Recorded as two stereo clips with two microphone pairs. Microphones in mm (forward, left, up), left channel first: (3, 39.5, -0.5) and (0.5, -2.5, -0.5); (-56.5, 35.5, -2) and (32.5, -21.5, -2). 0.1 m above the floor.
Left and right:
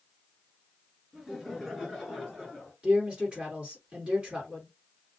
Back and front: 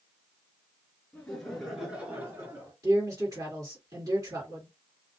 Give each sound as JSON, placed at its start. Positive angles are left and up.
{"t": 1.1, "sound": "laughter", "azimuth_deg": -150, "distance_m": 1.7}
{"t": 2.8, "sound": "a man speaking", "azimuth_deg": -55, "distance_m": 1.8}